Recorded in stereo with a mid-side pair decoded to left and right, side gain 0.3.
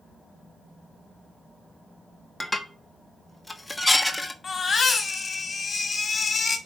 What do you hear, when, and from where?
2.4 s dishes clattering: 15° left, 1.2 m
4.4 s a baby crying: 55° left, 1.9 m